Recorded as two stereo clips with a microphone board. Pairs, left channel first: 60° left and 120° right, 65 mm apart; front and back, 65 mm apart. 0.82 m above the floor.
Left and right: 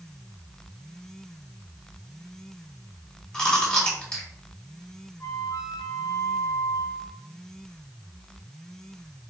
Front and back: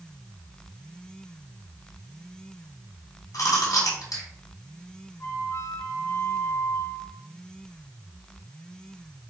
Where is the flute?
35° left, 1.5 m.